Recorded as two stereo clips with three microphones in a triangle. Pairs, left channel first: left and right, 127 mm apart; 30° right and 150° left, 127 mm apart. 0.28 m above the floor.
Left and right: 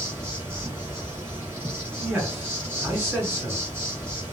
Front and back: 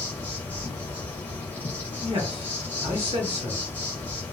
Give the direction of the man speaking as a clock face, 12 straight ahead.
6 o'clock.